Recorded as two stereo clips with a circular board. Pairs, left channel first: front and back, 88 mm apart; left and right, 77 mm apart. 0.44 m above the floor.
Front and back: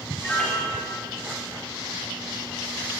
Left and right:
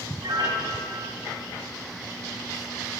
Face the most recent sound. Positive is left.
turn(degrees=-75)